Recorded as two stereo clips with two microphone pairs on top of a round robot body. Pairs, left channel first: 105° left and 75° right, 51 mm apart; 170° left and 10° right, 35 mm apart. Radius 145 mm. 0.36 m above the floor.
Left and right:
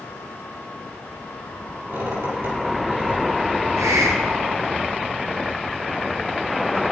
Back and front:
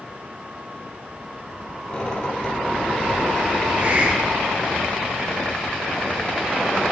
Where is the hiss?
55° right, 1.4 m.